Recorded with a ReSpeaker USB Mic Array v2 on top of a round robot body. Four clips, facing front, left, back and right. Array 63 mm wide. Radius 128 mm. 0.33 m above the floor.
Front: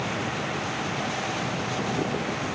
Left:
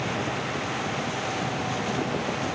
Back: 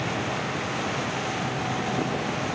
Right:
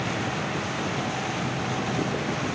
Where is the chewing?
I don't hear chewing.